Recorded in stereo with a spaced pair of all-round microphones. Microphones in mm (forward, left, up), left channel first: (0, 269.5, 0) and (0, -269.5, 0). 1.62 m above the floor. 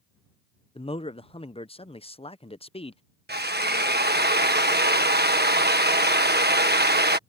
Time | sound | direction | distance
0.8 | a man speaking | 10° left (ahead or behind) | ?
3.3 | a drill | 20° right (ahead or behind) | ?